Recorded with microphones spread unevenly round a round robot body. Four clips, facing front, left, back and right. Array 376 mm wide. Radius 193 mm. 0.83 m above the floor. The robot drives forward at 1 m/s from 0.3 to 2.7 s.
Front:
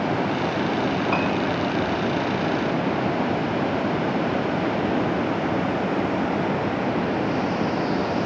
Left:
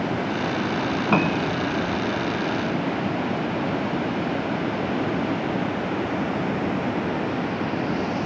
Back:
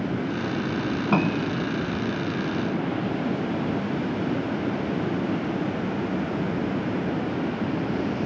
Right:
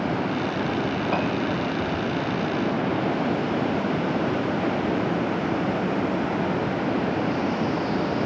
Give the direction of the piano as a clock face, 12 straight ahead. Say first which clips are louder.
Left 5 dB, front 1 dB; 7 o'clock.